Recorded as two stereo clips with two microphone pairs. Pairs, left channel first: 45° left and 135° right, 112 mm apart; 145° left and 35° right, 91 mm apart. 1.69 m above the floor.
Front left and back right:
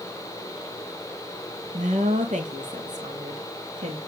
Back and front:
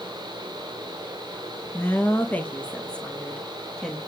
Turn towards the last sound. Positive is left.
turn(degrees=-125)